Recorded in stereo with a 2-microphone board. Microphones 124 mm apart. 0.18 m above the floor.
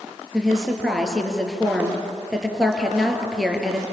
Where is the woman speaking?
Centre (ahead or behind), 4 m.